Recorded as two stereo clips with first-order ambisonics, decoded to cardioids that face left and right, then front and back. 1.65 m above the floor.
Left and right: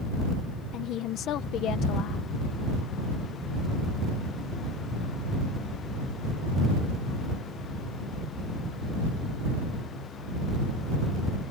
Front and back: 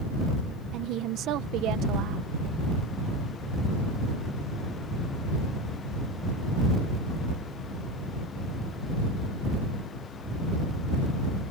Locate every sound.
0.7 s a woman speaking: 140° left